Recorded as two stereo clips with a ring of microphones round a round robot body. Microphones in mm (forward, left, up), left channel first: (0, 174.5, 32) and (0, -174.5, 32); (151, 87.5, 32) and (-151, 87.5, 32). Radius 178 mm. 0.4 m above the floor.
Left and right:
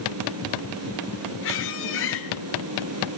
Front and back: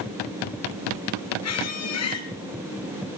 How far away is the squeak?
About 3.5 m.